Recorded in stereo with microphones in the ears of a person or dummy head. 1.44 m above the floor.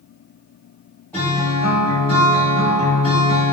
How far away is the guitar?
About 1.5 m.